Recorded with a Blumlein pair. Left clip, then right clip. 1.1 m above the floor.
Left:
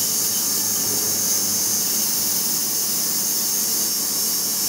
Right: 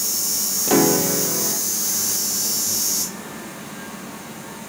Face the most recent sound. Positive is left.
turn(degrees=-45)